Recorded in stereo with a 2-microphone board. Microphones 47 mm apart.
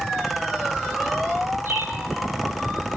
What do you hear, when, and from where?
1.6 s a bird: 55° right (ahead or behind), 6.5 m